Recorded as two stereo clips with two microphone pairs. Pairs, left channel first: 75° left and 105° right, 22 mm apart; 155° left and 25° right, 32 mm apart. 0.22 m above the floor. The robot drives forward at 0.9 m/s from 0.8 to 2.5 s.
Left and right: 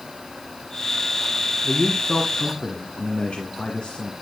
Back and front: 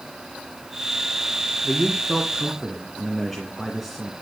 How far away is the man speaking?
About 2.5 m.